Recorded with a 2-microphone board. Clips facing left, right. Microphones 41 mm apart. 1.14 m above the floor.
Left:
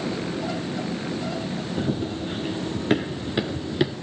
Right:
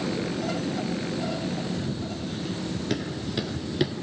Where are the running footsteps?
45° left (ahead or behind), 1.7 m; by 3.9 s 10° left (ahead or behind), 1.2 m.